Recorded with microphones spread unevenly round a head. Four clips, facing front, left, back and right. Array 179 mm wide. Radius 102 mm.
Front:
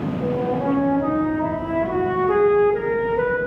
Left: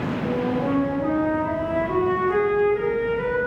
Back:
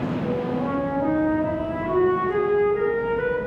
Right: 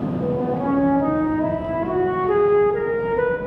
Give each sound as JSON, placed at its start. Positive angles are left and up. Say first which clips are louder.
{"t": 0.2, "sound": "a flute", "louder": "right 2 dB, front 6 dB", "azimuth_deg": -60, "distance_m": 4.0}